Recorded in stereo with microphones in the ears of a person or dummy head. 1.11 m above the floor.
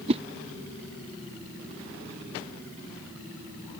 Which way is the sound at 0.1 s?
30° right (ahead or behind).